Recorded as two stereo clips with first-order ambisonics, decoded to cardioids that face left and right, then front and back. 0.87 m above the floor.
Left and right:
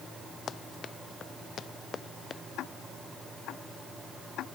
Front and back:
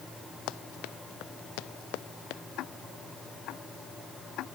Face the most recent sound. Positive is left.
turn(degrees=45)